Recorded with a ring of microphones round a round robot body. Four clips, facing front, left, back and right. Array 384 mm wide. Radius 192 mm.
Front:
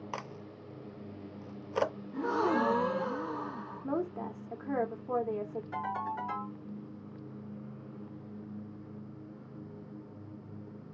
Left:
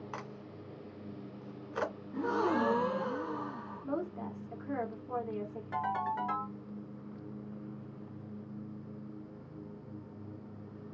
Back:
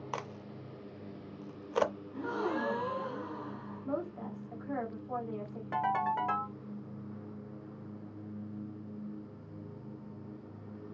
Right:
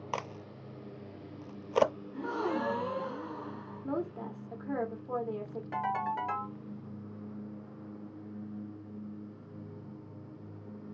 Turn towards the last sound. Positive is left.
turn(degrees=-170)